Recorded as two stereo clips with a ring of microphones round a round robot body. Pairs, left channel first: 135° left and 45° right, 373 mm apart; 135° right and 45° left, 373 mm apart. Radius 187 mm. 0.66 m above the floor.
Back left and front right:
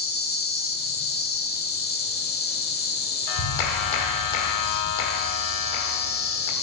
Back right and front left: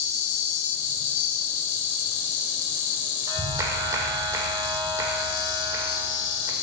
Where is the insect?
160° right, 1.2 m.